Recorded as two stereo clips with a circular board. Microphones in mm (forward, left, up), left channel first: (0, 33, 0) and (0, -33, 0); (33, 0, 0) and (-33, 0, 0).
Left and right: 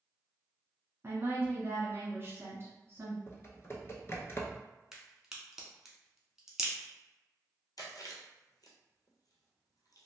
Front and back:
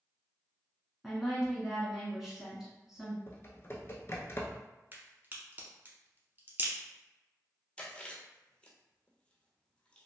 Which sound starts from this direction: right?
A woman speaking, at 1.0 s.